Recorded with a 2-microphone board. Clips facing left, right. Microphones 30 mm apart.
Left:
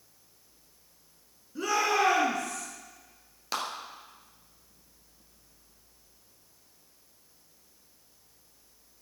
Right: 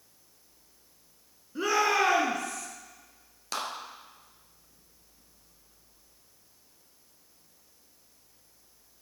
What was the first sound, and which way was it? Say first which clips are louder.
A shout: right 1 dB; 25° right (ahead or behind).